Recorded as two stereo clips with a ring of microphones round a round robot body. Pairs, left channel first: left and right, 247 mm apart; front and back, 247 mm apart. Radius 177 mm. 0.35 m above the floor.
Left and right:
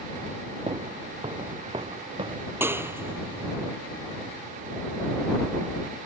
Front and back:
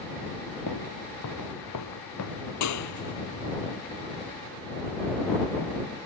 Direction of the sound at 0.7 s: 20° right.